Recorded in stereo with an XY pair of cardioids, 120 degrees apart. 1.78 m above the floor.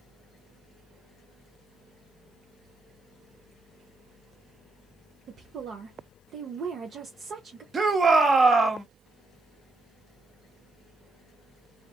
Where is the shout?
30° right, 0.9 m.